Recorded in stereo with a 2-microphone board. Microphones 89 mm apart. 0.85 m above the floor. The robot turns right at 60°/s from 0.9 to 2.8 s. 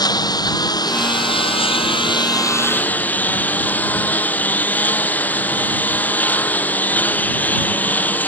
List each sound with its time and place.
0.0 s a lawn mower: 50° left; by 8.3 s 160° left